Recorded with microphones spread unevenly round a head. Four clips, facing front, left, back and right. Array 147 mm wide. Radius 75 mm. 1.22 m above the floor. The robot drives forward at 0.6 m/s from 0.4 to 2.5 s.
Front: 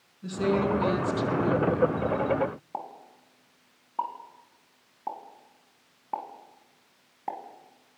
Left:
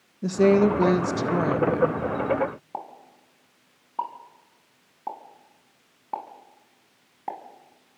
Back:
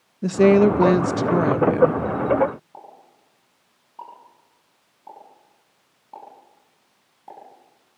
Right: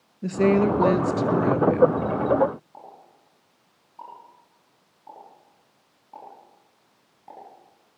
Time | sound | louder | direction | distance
0.2 | a woman speaking | left 1 dB, back 12 dB | 175° left | 1.3 m
2.7 | a pop | left 8 dB, front 6 dB | 55° left | 4.5 m